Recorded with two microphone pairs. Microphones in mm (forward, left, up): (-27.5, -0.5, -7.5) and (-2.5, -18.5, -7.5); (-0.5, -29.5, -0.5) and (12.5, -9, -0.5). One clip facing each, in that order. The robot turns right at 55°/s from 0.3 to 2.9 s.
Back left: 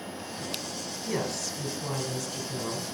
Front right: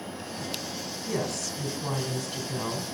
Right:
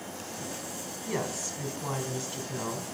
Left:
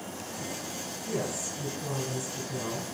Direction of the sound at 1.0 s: 165° right.